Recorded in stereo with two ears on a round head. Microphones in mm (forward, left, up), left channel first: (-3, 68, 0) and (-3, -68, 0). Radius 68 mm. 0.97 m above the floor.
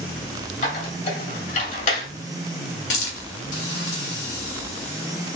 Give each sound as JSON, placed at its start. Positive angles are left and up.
{"t": 0.6, "sound": "a squeak", "side_deg": 55, "distance_m": 2.0}
{"t": 2.9, "sound": "a hiss", "side_deg": 85, "distance_m": 2.0}